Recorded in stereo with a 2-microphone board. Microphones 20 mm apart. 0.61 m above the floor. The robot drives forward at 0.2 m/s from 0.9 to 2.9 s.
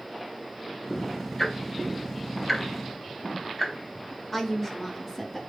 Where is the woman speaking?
15° left (ahead or behind), 0.7 m.